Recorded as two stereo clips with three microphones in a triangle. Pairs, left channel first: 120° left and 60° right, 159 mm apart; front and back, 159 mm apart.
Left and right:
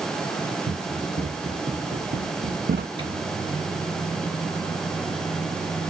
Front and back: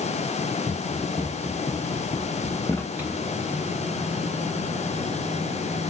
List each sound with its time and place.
0.7 s running footsteps: 70° right, 3.5 m; by 2.9 s 75° right, 0.6 m
3.0 s a microwave: 105° right, 1.8 m